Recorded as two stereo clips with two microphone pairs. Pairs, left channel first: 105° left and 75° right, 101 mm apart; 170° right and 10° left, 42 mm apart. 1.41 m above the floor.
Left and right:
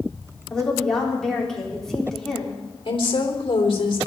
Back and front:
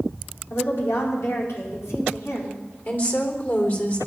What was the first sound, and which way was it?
A woman speaking, 170° right.